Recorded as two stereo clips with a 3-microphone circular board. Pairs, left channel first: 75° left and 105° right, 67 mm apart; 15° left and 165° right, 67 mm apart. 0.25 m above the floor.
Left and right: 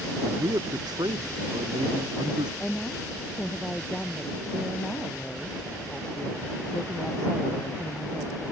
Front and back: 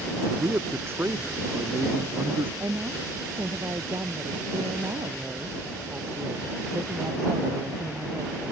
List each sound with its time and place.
0.2 s a man speaking: 115° right; by 2.5 s 105° right
2.6 s a woman speaking: 155° left